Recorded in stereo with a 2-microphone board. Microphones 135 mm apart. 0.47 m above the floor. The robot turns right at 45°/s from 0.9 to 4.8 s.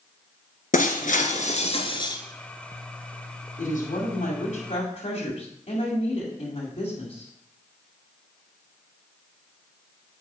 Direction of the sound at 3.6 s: 65° left.